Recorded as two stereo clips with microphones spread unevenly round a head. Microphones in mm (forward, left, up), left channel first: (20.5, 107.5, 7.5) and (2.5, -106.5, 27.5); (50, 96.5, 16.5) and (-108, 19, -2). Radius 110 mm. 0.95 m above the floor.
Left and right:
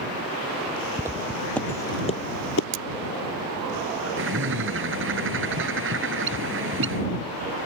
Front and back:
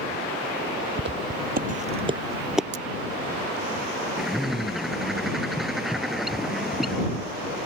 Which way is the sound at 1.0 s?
170° right.